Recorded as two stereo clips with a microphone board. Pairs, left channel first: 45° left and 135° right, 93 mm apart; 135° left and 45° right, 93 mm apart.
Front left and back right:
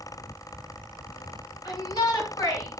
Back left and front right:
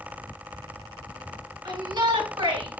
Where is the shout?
5° right, 5 m; by 2.8 s 15° right, 4 m.